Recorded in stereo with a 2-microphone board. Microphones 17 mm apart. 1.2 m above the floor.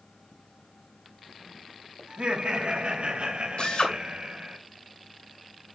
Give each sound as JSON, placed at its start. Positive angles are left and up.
{"t": 2.1, "sound": "laughter", "side_deg": -80, "distance_m": 2.5}
{"t": 3.6, "sound": "a drill", "side_deg": 60, "distance_m": 2.5}